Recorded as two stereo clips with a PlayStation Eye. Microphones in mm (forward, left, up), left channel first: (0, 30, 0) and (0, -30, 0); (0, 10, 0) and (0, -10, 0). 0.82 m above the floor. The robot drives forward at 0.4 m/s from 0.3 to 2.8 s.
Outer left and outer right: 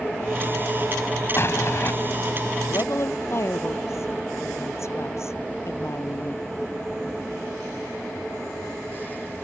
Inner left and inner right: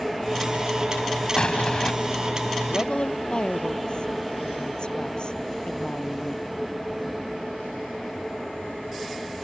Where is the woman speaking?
50° left (ahead or behind).